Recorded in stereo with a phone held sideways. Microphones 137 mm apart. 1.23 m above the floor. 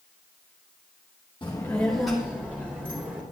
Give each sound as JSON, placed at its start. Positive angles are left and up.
{"t": 1.4, "sound": "a child speaking", "side_deg": 35, "distance_m": 1.0}